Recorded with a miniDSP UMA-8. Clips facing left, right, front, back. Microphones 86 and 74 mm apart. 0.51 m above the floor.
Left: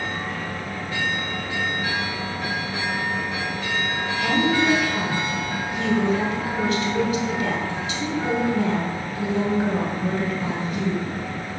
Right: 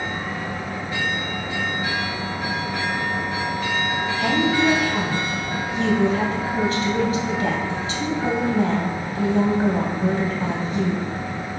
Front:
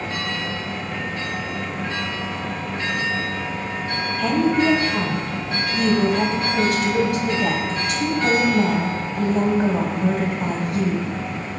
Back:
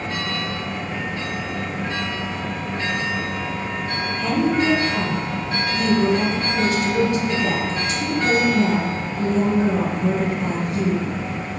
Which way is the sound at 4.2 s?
35° right.